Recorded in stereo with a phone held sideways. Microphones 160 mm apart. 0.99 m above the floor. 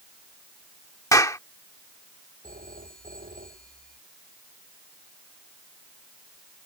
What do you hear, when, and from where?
1.1 s a clap: 20° left (ahead or behind)
2.4 s a phone ringing: 60° right (ahead or behind)